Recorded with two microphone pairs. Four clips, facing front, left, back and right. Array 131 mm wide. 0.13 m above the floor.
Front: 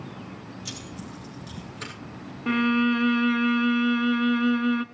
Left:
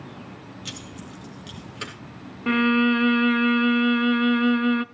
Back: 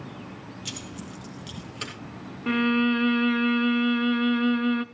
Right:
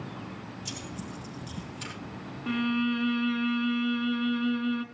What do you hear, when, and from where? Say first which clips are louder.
0.7 s keys jangling: even, back 2 dB; 95° left, 2.5 m; by 1.9 s 115° left, 3 m
2.5 s a violin: left 8 dB, even; 80° left, 0.5 m